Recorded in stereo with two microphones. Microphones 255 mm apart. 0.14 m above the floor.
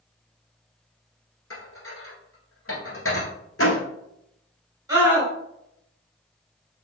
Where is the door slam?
60° left (ahead or behind), 1.7 m.